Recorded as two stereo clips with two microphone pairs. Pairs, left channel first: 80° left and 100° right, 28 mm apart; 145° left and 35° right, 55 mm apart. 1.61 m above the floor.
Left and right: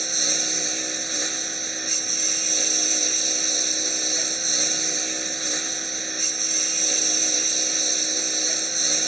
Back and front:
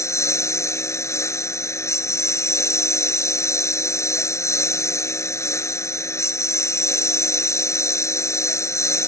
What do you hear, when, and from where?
0.0 s a lawn mower: 170° left